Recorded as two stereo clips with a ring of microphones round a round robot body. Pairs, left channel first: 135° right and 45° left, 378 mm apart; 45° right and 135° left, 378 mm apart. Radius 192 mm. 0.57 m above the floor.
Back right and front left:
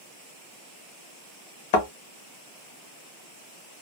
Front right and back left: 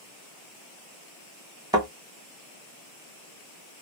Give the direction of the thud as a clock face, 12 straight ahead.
5 o'clock.